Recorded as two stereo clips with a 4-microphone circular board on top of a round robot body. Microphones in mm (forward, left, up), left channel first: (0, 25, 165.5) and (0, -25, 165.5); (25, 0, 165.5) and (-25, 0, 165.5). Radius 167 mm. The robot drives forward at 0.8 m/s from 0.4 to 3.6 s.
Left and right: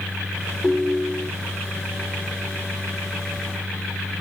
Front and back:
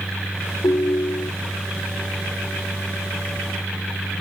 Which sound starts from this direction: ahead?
A ringtone, at 0.6 s.